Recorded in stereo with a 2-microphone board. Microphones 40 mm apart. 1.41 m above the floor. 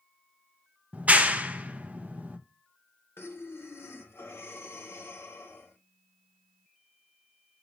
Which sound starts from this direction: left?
Breathing, at 3.2 s.